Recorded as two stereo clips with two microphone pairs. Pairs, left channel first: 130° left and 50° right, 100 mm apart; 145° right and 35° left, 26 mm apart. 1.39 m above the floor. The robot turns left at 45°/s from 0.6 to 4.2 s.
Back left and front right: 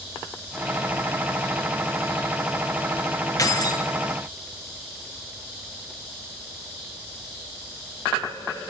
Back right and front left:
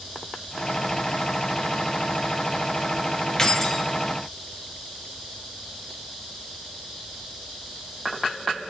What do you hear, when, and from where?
3.4 s keys jangling: 160° left, 0.8 m; by 3.9 s 140° left, 0.8 m